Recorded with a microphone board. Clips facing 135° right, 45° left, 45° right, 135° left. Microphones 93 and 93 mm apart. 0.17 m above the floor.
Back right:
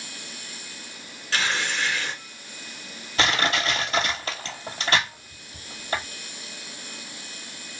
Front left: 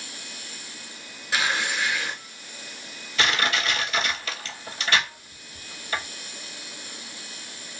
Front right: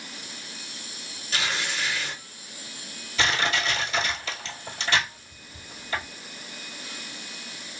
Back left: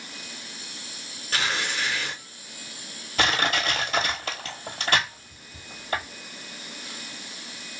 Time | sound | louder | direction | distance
1.3 | tearing paper | front left 1 dB, back left 2 dB | 120° left | 1.6 m
3.2 | crushing | back right 1 dB, back left 1 dB | 175° left | 1.3 m